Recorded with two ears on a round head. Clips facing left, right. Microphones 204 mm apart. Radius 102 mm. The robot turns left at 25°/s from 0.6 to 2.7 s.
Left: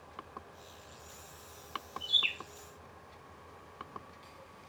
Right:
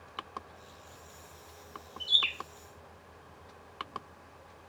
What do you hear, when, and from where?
2.0 s a bird: 75° right (ahead or behind), 1.1 m